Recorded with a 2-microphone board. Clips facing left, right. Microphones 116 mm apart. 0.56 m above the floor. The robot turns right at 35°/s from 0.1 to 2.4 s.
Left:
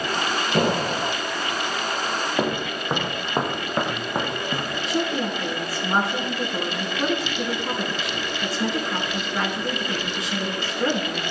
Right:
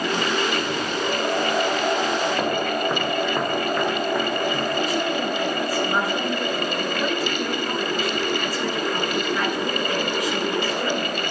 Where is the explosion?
70° left (ahead or behind), 1.9 m; by 1.1 s 60° left (ahead or behind), 1.9 m.